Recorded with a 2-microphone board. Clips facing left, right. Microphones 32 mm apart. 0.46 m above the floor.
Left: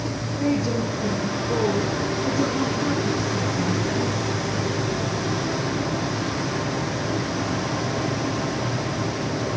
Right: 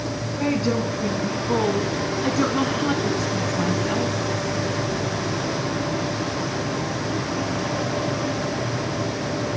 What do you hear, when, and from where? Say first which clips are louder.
0.4 s a woman speaking: right 1 dB; 50° right (ahead or behind), 4 m; by 4.2 s 75° right (ahead or behind), 3 m